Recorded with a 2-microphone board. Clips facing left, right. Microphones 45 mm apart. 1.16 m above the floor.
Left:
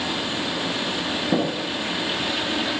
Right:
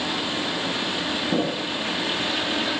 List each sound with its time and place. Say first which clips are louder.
1.3 s tapping: left 2 dB; 30° left (ahead or behind), 8 m